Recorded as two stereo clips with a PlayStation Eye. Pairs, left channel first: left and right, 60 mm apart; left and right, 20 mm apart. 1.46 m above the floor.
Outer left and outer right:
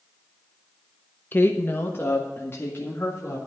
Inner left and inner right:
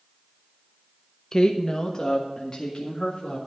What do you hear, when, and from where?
1.3 s a woman speaking: 30° left (ahead or behind), 0.7 m; by 3.4 s 45° left (ahead or behind), 3 m